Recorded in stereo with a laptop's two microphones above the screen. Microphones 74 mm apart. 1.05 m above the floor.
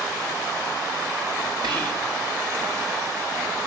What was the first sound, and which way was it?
Whispering, 75° right (ahead or behind).